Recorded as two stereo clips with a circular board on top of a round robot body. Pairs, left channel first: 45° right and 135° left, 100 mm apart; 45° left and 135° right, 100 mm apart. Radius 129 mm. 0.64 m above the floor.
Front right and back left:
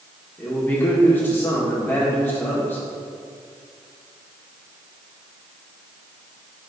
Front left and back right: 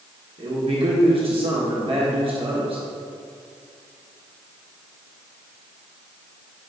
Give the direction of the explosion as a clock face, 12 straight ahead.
No explosion in this recording.